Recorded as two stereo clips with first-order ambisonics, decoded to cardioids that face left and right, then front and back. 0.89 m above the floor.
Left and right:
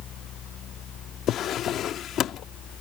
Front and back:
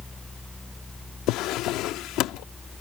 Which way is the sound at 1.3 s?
35° left.